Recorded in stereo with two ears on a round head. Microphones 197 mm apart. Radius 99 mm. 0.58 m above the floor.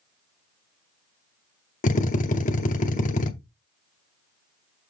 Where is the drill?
35° left (ahead or behind), 0.8 m.